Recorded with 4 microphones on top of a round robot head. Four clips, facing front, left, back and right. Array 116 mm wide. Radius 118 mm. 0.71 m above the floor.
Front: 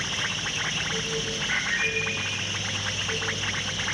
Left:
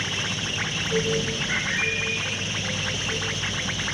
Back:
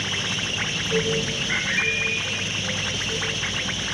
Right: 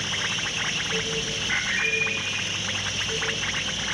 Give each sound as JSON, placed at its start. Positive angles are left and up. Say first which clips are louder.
{"t": 1.5, "sound": "a bird", "louder": "even, even", "azimuth_deg": 45, "distance_m": 1.6}